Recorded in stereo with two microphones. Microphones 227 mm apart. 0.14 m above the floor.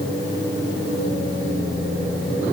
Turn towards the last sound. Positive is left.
No sound to turn to.